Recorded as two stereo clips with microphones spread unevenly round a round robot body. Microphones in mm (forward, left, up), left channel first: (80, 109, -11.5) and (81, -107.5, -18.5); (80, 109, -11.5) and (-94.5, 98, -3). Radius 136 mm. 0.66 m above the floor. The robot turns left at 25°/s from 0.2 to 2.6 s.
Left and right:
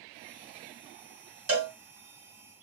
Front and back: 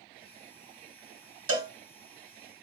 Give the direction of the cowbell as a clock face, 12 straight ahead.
5 o'clock.